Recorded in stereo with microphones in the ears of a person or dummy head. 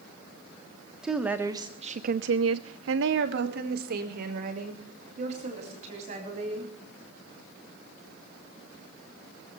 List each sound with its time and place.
1.0 s a woman speaking: centre (ahead or behind), 1.4 m; by 6.7 s 50° right (ahead or behind), 4 m